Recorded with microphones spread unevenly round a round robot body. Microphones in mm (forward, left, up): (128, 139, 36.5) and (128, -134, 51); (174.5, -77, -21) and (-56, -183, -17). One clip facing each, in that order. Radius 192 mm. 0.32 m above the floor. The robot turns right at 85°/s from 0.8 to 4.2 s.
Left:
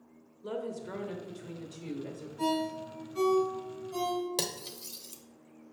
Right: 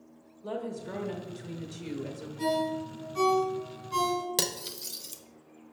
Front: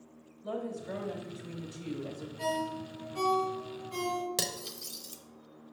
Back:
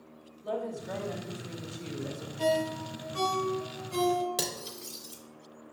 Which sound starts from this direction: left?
A woman speaking, at 0.4 s.